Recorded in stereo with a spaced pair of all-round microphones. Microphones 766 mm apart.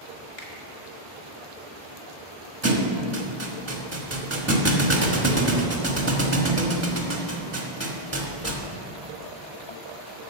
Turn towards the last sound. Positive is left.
turn(degrees=-20)  # may be behind; listen again after turning